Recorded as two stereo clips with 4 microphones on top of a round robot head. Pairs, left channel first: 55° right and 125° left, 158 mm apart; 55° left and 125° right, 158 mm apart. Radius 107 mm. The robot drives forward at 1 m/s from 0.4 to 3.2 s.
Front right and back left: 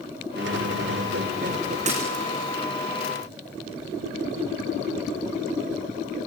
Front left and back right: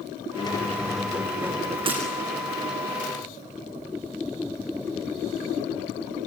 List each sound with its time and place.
0.4 s a squeak: 110° left, 0.8 m; by 1.8 s 160° left, 1.8 m
1.9 s breaking glass: 175° left, 5.5 m